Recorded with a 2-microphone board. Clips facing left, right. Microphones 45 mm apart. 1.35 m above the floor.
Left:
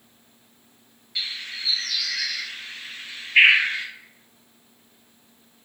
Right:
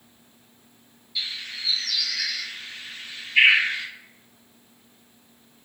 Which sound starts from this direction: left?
A bird, at 1.1 s.